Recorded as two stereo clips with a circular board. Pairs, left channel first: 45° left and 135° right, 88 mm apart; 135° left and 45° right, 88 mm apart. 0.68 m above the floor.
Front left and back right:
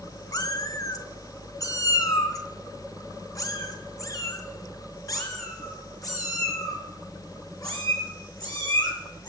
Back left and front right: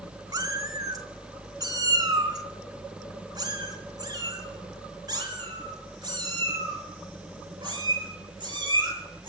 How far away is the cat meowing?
About 1.4 m.